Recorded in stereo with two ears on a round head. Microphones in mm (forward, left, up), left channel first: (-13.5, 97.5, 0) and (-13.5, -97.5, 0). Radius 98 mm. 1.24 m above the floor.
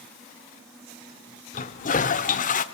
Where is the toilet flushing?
35° left (ahead or behind), 1.3 m.